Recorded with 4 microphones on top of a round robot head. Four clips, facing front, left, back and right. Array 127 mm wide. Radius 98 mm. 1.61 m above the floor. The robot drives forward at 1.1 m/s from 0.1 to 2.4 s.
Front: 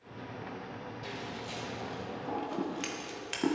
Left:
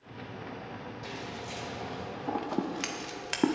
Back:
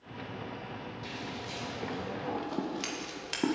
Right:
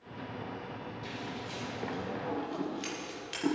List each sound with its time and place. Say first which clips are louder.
1.0 s scissors: left 1 dB, even; 50° left, 2 m; by 3.6 s 95° left, 1.7 m